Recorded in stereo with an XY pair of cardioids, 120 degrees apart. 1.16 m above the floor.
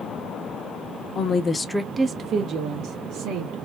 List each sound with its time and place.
1.1 s a woman speaking: 55° left, 0.8 m; by 3.6 s 75° right, 1.8 m